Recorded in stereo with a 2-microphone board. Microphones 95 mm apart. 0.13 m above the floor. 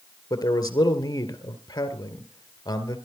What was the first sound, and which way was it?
A man speaking, 40° left (ahead or behind).